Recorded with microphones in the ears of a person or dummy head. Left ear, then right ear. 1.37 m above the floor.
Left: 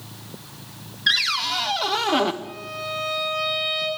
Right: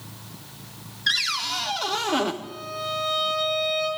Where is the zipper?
I don't hear a zipper.